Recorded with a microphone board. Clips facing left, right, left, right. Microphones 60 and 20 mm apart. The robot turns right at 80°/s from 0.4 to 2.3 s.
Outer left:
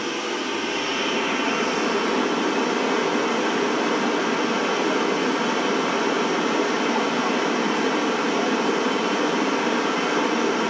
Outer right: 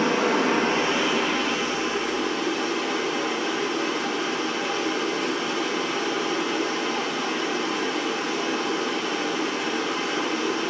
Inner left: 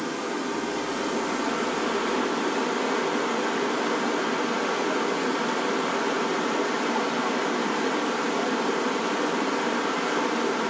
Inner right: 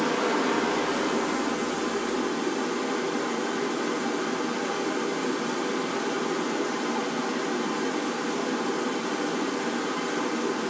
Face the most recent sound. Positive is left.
turn(degrees=90)